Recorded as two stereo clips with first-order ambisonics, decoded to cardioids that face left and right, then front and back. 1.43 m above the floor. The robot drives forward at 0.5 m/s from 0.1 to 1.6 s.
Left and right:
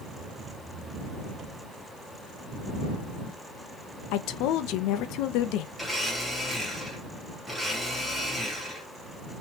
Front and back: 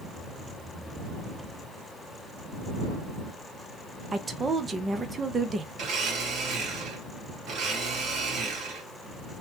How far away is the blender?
About 1.4 m.